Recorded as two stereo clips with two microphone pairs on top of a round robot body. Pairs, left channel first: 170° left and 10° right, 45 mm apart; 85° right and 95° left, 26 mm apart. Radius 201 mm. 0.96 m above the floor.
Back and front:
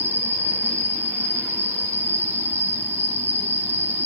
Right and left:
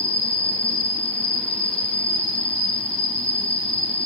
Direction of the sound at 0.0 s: 35° right.